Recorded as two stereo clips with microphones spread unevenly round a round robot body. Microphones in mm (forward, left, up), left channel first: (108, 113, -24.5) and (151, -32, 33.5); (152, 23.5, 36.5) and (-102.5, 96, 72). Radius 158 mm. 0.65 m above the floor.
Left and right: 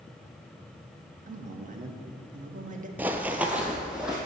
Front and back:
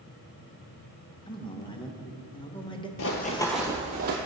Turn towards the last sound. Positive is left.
turn(degrees=-145)